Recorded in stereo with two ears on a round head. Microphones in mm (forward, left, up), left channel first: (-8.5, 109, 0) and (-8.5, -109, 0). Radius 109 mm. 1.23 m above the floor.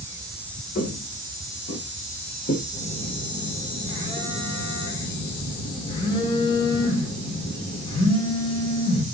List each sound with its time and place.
0.8 s footsteps: 30° left (ahead or behind), 6.5 m; by 2.6 s 35° left (ahead or behind), 8 m
2.7 s a phone buzzing: 20° left (ahead or behind), 4.5 m